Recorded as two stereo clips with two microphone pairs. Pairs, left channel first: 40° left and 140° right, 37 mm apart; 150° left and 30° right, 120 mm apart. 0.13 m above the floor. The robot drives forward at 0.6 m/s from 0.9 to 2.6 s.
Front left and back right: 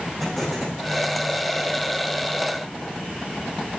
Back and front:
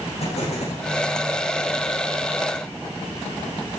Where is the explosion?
125° left, 9.5 m.